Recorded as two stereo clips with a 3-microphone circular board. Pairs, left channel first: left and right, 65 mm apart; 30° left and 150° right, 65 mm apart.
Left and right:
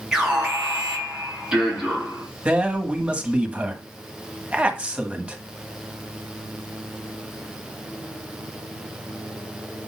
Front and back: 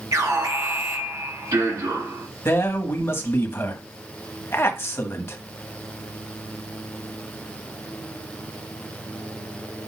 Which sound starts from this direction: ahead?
A man speaking, at 2.5 s.